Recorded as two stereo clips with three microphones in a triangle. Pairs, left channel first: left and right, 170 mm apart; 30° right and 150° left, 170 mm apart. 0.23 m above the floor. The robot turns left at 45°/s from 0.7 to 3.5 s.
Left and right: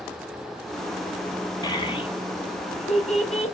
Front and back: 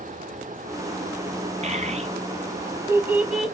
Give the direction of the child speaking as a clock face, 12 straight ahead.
7 o'clock.